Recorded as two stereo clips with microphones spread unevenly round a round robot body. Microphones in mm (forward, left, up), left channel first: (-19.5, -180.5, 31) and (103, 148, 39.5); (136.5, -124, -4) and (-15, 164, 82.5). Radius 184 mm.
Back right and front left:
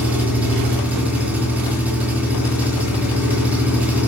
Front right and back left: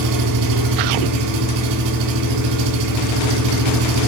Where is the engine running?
155° left, 2.5 m.